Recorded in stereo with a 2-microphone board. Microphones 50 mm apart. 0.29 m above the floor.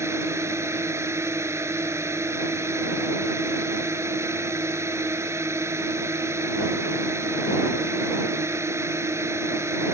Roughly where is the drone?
Right.